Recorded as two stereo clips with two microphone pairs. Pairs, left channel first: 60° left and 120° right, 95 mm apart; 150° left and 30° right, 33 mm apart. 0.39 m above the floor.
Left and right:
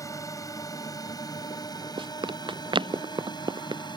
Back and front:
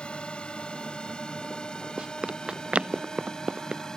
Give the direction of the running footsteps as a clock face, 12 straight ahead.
3 o'clock.